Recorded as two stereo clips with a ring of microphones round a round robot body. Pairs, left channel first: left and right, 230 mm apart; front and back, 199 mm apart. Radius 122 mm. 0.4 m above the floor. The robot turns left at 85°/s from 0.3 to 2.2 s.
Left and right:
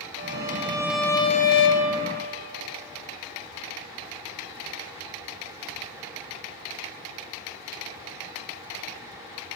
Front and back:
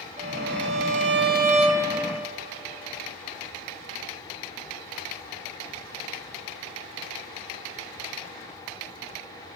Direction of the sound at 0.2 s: 125° right.